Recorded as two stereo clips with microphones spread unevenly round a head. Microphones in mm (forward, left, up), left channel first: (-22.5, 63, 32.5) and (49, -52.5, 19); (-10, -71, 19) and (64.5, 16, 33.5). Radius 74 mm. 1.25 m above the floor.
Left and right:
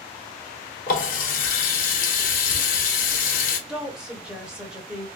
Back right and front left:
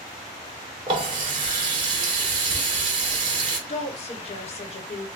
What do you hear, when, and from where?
0.9 s a running tap: 105° left, 0.8 m
3.7 s a woman speaking: 140° right, 1.1 m